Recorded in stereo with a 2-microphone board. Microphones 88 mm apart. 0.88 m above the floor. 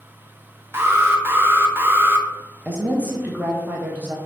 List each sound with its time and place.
0.7 s an alarm: 25° right (ahead or behind), 0.6 m
2.6 s a woman speaking: 20° right (ahead or behind), 0.7 m